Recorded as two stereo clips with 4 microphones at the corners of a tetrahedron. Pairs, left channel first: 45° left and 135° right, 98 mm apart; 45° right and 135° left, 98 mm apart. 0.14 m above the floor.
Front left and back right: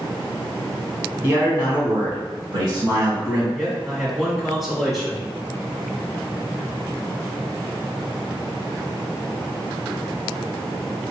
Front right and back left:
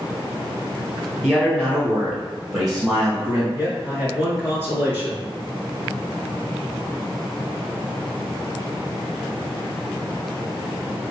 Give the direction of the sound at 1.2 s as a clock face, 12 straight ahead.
5 o'clock.